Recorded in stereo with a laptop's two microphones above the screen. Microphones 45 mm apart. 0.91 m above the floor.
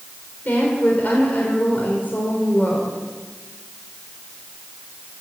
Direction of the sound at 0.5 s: 40° left (ahead or behind).